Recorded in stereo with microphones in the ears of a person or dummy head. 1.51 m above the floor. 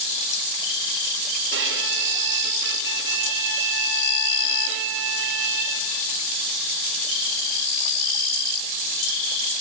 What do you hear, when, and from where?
1.5 s a violin: 65° right (ahead or behind), 0.7 m